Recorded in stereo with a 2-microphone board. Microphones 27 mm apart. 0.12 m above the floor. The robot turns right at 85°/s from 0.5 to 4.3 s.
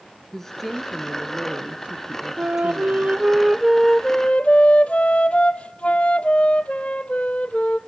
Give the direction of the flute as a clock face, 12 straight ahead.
4 o'clock.